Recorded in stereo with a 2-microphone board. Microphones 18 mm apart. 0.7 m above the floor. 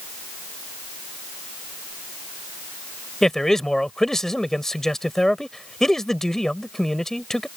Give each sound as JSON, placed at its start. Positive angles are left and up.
{"t": 3.2, "sound": "a man speaking", "side_deg": 30}